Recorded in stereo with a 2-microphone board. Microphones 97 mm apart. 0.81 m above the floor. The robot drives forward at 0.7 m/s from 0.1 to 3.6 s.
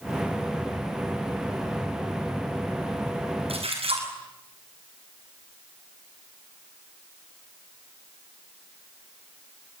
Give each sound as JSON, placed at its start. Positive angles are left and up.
{"t": 3.5, "sound": "a splash", "side_deg": -80, "distance_m": 6.5}